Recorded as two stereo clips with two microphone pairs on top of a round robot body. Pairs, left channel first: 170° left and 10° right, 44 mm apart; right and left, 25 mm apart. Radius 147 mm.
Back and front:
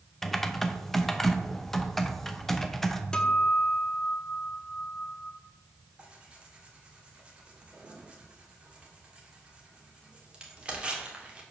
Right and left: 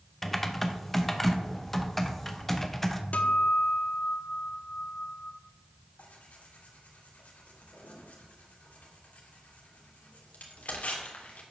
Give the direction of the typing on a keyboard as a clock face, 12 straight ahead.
4 o'clock.